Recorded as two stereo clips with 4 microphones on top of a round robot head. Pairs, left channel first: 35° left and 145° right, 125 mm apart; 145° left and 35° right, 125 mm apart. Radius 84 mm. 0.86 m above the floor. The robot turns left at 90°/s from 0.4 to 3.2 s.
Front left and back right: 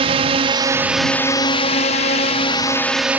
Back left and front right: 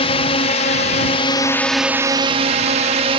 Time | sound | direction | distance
0.0 | a drone | straight behind | ?